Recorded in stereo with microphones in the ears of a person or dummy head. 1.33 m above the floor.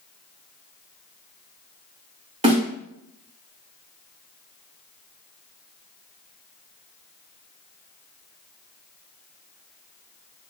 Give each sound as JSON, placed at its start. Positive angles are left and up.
{"t": 2.4, "sound": "a snare drum", "side_deg": -30, "distance_m": 2.5}